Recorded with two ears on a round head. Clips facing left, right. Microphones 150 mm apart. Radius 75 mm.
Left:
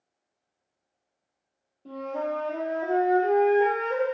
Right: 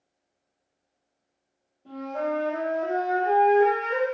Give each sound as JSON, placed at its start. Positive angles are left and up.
{"t": 1.9, "sound": "a flute", "side_deg": 40, "distance_m": 1.8}